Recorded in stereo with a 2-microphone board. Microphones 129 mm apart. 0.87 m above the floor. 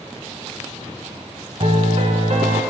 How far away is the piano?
About 1.6 m.